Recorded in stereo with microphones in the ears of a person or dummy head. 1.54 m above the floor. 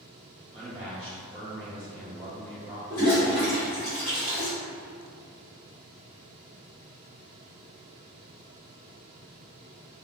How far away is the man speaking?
About 1.1 m.